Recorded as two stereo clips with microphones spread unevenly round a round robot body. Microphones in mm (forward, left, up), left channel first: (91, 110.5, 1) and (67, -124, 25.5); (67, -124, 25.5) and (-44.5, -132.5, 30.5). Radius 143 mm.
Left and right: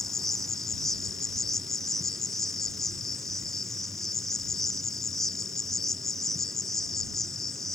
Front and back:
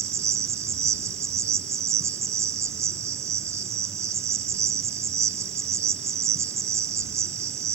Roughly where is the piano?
No piano in this recording.